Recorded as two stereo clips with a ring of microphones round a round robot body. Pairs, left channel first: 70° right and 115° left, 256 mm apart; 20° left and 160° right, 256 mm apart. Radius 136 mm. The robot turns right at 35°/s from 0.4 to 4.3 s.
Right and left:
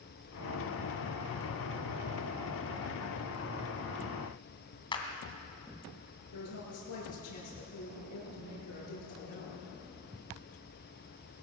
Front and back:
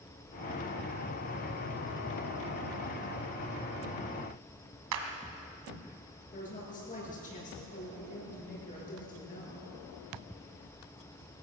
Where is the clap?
140° right, 2.5 m.